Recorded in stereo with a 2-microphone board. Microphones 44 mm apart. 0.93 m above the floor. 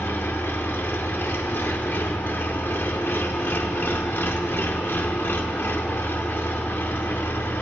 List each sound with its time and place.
0.0 s an engine running: 60° left (ahead or behind), 1.3 m